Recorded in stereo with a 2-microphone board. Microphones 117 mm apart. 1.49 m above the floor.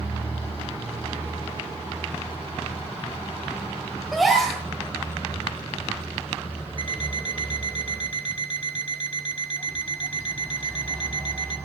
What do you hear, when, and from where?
4.1 s a gasp: centre (ahead or behind), 3.5 m
6.8 s an alarm clock: 45° left (ahead or behind), 1.4 m